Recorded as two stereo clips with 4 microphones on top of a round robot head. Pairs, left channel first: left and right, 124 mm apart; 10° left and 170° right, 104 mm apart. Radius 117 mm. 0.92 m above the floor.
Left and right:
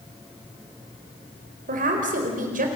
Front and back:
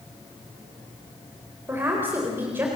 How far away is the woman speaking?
About 4 m.